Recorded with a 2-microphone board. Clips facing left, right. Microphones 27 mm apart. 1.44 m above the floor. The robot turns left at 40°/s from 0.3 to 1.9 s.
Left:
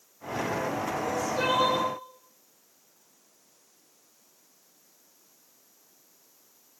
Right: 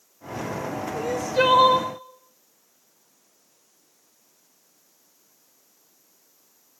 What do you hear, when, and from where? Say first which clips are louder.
0.9 s crying: right 9 dB; 100° right, 1.0 m; by 1.9 s 135° right, 1.0 m